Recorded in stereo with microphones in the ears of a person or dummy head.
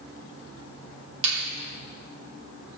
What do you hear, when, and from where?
1.2 s a finger snap: 85° right, 3 m